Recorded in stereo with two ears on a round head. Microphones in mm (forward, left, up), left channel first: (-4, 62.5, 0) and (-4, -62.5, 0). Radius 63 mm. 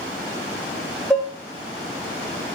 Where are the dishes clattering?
Centre (ahead or behind), 0.6 m.